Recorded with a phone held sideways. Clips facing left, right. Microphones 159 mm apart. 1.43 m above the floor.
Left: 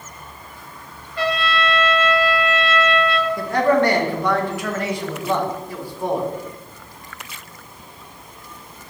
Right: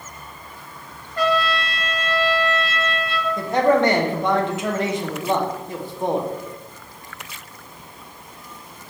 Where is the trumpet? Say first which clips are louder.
Right 1 dB; 45° right (ahead or behind), 0.9 m.